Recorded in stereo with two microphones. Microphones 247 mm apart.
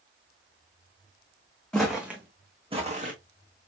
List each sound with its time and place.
1.7 s footsteps: centre (ahead or behind), 1.8 m; by 3.1 s 35° right (ahead or behind), 1.6 m